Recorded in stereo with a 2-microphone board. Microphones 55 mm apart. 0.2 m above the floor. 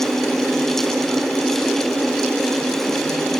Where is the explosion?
I don't hear an explosion.